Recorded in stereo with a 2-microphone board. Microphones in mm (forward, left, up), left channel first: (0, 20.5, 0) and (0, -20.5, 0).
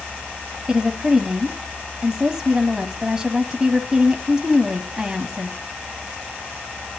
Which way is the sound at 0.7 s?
15° right (ahead or behind).